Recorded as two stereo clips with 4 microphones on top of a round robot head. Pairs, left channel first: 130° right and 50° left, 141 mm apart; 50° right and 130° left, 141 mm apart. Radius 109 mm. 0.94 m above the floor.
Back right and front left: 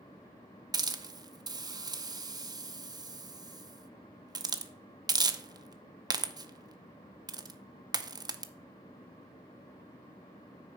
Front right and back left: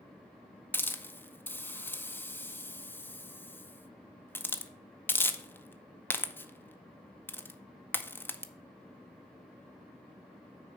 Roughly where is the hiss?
Ahead.